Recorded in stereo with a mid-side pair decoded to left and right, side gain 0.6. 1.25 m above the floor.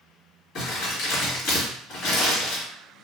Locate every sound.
0.6 s crumpling: 55° left, 1.5 m